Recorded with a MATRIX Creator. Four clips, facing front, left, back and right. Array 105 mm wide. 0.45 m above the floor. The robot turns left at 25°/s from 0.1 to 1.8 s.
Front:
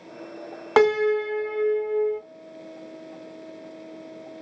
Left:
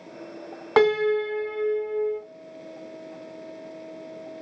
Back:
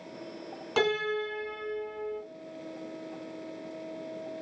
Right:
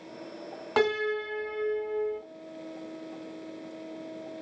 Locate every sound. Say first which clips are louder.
0.8 s a piano: left 7 dB, front 10 dB; 30° left, 0.9 m; by 2.2 s straight ahead, 0.9 m